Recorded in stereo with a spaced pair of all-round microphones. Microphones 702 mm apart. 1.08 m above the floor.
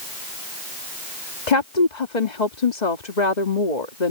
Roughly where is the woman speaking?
Left.